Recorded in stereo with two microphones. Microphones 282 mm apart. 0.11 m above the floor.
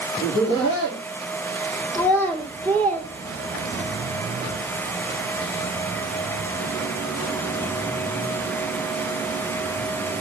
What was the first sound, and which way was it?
Laughter, 40° left (ahead or behind).